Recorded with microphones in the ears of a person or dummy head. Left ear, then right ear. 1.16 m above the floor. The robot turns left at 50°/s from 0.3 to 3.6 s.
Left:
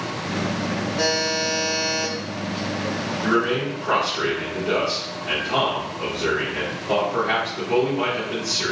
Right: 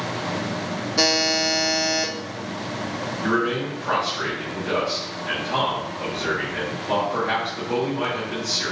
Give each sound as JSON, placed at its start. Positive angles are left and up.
{"t": 1.0, "sound": "a buzzer", "azimuth_deg": -65, "distance_m": 0.7}
{"t": 3.2, "sound": "a man speaking", "side_deg": -35, "distance_m": 2.0}